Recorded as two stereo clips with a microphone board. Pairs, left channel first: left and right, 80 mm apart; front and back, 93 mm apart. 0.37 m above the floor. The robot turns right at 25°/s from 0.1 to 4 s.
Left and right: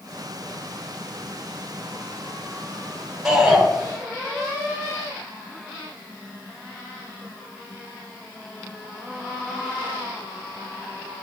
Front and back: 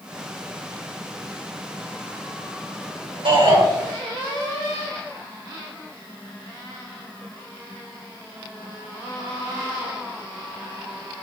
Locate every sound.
3.2 s a shout: 175° right, 4 m; by 3.6 s 165° right, 4 m